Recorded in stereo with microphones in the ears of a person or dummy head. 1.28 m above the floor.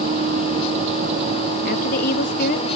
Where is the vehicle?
35° right (ahead or behind).